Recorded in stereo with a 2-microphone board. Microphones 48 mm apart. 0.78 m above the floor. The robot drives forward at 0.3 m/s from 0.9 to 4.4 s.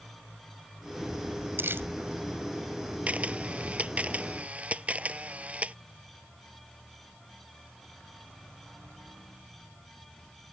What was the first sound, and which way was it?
Crumpling, 50° right (ahead or behind).